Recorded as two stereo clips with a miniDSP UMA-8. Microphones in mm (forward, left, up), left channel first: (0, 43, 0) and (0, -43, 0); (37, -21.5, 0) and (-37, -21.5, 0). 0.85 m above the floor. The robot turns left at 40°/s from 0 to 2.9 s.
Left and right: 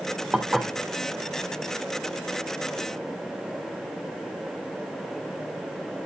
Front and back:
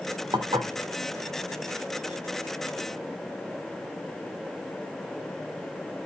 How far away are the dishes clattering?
About 1.7 m.